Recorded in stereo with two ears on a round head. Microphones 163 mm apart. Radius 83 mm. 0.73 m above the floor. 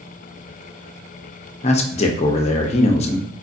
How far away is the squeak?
I don't hear a squeak.